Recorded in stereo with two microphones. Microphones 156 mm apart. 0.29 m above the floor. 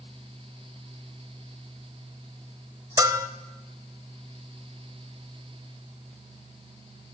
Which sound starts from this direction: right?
A bell, at 3.0 s.